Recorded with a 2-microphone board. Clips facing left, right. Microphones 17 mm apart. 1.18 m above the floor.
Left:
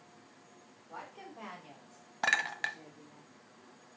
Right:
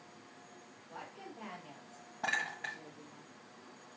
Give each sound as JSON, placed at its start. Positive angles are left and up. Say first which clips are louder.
{"t": 0.9, "sound": "a woman speaking", "louder": "left 2 dB", "side_deg": 75, "distance_m": 4.0}
{"t": 2.2, "sound": "a clink", "louder": "left 5 dB", "side_deg": 75, "distance_m": 0.9}